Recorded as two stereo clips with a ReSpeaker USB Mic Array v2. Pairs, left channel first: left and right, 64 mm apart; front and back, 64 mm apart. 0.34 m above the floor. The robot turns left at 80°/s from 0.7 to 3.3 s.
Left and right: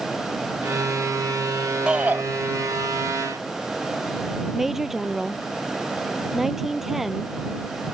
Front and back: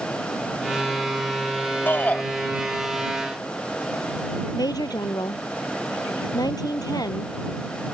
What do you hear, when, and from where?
1.9 s a shout: 30° right; by 2.2 s 60° right
4.5 s a woman speaking: 5° right